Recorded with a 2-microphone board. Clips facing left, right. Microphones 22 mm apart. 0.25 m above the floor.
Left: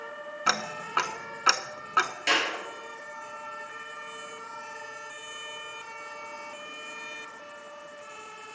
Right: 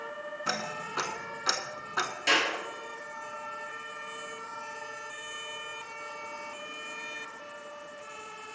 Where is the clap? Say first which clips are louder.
Right 3 dB; 15° left (ahead or behind), 5 m.